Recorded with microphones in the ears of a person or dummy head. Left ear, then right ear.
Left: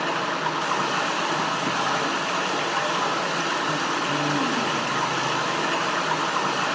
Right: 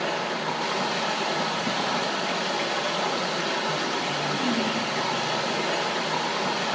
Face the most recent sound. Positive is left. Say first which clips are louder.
# left 2 dB
turn(degrees=45)  # may be behind; listen again after turning